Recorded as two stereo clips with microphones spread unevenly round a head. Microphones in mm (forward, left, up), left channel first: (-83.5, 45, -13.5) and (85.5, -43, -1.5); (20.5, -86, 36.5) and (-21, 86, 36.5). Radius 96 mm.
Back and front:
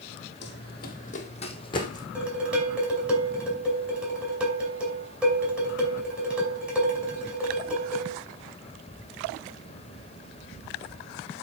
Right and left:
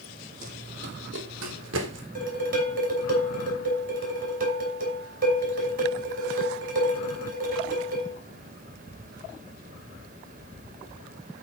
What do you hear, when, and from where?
0.4 s running footsteps: 145° left, 1.6 m; by 2.0 s 80° left, 2.5 m
2.1 s dishes clattering: 60° left, 5 m